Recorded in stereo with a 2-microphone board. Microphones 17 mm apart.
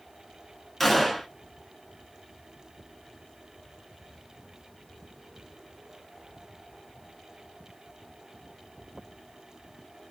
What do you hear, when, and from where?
0.8 s a gunshot: 10° left (ahead or behind), 0.6 m